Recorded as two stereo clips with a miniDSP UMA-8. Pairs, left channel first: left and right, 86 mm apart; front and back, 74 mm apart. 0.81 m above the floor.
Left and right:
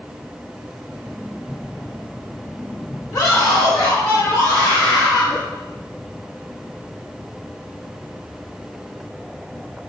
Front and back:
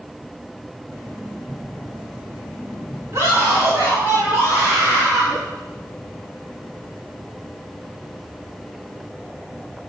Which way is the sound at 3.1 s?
130° left.